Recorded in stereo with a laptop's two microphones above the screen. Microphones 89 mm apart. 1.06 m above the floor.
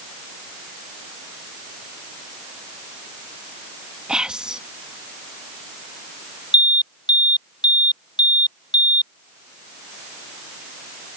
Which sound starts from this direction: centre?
Whispering, at 4.1 s.